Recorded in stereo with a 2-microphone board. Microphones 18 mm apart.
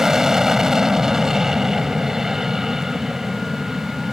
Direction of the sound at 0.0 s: 25° right (ahead or behind).